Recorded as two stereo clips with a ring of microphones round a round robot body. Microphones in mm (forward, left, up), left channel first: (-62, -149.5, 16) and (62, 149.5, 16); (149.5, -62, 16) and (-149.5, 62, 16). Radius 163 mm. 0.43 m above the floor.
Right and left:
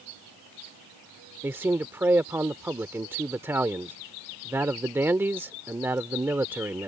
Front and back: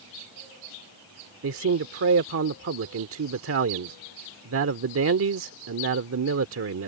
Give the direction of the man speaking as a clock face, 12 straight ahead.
7 o'clock.